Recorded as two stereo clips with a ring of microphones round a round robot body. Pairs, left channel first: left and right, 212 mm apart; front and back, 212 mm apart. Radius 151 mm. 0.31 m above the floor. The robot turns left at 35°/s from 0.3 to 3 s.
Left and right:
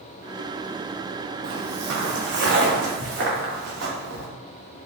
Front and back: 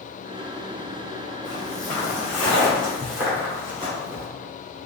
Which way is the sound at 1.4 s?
75° right.